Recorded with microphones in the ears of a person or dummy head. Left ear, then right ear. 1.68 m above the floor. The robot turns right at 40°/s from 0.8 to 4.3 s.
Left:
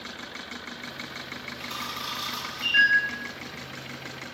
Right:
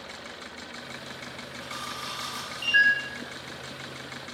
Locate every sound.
1.6 s a camera shutter: 20° left (ahead or behind), 1.3 m; by 2.9 s 20° right (ahead or behind), 1.3 m